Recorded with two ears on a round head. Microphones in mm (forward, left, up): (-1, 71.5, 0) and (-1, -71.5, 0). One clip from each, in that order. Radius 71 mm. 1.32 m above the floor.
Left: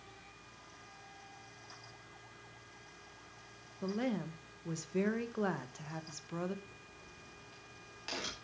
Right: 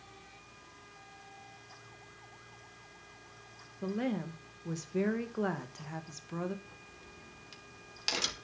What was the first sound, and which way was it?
A woman speaking, 10° left (ahead or behind).